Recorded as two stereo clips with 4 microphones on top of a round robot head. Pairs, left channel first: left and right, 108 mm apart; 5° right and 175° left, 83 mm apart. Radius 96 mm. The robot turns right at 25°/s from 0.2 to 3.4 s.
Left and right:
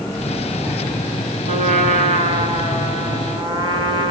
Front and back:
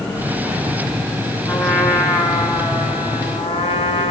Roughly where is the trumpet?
Right.